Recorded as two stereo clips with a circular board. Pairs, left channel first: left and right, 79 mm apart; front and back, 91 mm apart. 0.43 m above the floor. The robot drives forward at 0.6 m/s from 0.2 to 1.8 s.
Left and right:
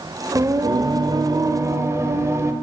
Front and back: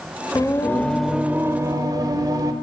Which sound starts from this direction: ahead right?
Singing, at 0.3 s.